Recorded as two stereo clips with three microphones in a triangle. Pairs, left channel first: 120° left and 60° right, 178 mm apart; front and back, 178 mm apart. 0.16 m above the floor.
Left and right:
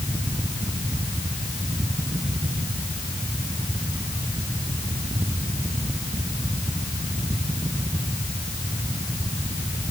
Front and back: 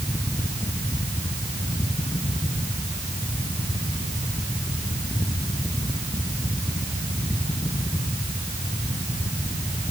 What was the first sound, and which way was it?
Only background noise.